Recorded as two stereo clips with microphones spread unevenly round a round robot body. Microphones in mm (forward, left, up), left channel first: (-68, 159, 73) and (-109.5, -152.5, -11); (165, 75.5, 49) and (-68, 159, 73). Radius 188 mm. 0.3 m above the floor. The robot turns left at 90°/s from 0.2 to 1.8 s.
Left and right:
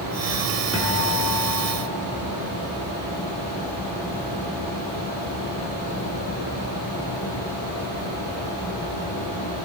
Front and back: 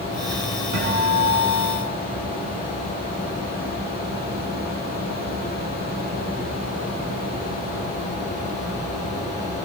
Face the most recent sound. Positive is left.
turn(degrees=70)